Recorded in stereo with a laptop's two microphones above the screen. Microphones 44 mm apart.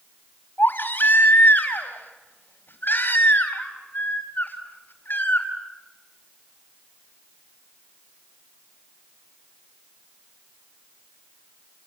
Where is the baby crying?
50° left (ahead or behind), 5 m.